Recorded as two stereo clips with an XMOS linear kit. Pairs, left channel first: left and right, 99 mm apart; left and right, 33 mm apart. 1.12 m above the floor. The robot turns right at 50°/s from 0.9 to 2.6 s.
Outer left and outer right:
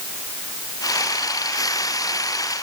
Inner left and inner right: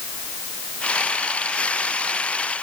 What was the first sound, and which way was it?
Only background noise.